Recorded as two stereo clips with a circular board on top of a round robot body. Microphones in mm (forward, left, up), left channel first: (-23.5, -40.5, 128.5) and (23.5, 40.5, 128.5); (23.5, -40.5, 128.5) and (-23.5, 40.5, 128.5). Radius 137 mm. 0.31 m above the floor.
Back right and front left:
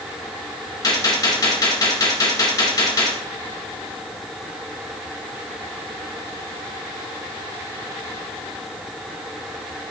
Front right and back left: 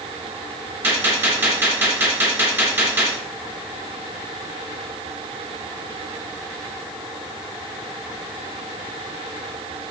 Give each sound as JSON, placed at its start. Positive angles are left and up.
{"t": 0.8, "sound": "a gunshot", "azimuth_deg": -175, "distance_m": 2.5}